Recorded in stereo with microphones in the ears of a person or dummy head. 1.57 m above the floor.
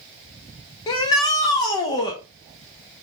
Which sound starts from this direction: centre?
A shout, at 0.9 s.